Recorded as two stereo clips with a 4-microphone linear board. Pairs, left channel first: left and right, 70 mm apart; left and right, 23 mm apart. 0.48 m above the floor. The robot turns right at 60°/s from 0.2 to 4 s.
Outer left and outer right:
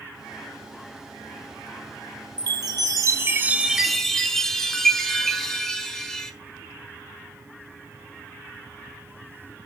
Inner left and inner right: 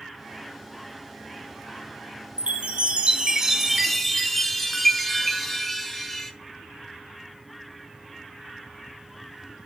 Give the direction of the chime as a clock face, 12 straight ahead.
3 o'clock.